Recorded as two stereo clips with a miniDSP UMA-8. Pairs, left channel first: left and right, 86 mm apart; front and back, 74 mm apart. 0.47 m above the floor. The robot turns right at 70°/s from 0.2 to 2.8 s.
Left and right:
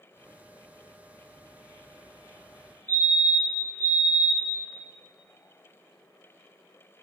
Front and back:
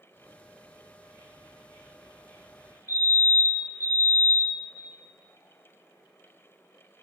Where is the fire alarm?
25° left, 3 m.